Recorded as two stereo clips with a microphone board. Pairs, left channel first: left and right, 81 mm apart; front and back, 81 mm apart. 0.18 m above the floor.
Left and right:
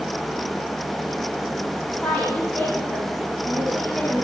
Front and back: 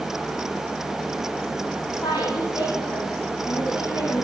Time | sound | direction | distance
1.9 | a woman speaking | 35° left | 7 m